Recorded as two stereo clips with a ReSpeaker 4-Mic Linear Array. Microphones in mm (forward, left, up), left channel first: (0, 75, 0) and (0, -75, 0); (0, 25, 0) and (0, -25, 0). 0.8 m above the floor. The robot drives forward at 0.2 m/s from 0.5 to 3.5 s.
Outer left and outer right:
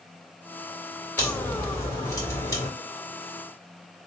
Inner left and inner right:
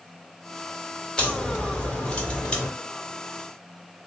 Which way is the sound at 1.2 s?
25° left (ahead or behind).